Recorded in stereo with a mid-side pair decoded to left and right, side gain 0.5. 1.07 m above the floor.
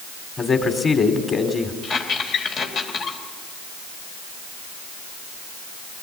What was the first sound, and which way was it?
A man speaking, 35° left.